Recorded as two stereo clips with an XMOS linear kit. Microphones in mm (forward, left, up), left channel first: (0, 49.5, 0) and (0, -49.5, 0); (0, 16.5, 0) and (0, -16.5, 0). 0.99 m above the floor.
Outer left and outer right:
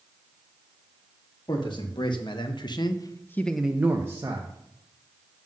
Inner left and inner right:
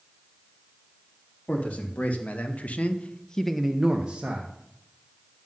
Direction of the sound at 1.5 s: 55° left (ahead or behind).